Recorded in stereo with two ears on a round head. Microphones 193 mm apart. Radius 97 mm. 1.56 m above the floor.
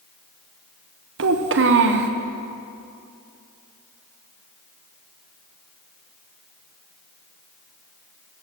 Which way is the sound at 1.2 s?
60° right (ahead or behind).